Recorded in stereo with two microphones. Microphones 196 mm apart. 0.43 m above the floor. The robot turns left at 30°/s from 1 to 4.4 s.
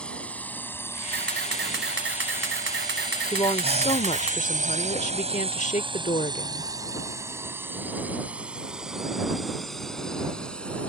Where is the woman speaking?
145° left; by 6.7 s 110° left.